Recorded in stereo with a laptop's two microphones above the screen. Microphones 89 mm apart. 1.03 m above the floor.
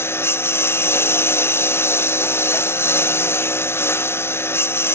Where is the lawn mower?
25° left (ahead or behind).